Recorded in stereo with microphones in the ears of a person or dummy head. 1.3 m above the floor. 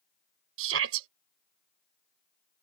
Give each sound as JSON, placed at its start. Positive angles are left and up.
{"t": 0.6, "sound": "a shout", "side_deg": -75}